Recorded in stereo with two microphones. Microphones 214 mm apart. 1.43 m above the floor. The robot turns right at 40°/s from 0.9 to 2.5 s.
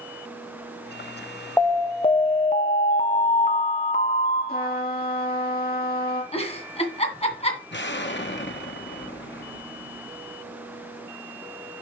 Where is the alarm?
15° left, 0.7 m; by 4.8 s 50° left, 0.7 m.